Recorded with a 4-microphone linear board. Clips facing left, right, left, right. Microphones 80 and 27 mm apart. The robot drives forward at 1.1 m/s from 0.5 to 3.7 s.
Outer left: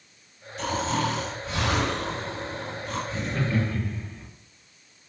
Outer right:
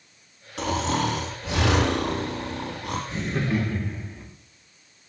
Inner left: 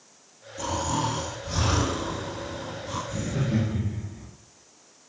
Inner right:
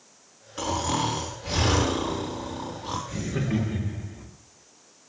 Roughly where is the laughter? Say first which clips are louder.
Outer right 2 dB, inner left 1 dB; right.